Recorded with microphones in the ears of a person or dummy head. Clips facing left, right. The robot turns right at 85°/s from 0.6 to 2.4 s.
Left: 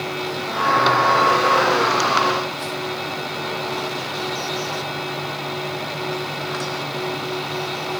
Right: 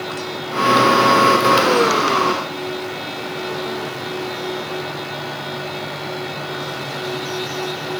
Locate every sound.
Only background noise.